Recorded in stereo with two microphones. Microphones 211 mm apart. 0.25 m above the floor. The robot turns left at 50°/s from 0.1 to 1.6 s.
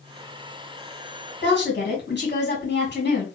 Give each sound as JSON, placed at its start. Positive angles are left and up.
{"t": 1.4, "sound": "a woman speaking", "side_deg": 55, "distance_m": 2.5}